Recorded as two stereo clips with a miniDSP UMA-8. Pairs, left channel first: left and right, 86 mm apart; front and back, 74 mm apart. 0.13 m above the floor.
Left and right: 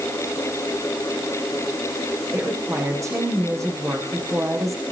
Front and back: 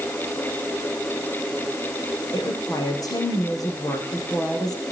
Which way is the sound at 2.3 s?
35° right.